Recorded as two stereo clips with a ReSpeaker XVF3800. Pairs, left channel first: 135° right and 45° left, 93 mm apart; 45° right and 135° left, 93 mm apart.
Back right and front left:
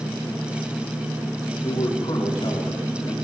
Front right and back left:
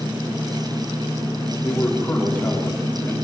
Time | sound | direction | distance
1.6 | a man speaking | 120° right | 5 m